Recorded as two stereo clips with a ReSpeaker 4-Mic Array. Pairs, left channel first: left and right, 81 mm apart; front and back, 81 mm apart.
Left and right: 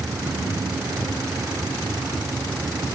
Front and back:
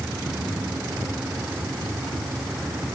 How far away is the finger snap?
No finger snap in this recording.